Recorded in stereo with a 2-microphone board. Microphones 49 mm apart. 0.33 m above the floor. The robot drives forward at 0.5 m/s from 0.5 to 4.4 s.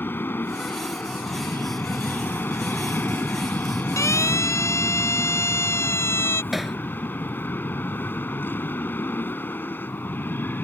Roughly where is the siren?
Left.